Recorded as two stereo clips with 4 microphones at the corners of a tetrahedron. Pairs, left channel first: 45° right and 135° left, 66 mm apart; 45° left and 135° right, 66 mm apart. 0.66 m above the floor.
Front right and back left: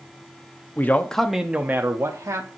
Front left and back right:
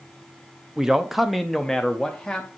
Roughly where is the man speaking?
Ahead right.